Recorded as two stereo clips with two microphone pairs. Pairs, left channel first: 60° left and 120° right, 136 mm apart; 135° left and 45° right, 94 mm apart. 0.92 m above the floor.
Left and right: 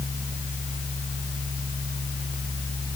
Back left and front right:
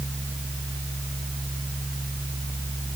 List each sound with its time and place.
Only background noise.